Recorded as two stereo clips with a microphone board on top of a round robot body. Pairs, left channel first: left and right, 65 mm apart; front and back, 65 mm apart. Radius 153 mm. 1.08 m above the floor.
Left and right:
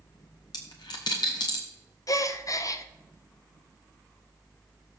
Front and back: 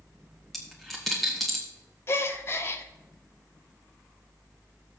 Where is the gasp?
50° left, 0.6 m.